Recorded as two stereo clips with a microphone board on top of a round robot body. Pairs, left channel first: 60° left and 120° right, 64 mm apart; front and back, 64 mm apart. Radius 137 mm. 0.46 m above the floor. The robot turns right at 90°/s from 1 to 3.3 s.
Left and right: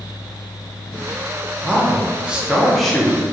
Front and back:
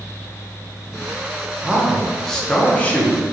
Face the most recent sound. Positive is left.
turn(degrees=20)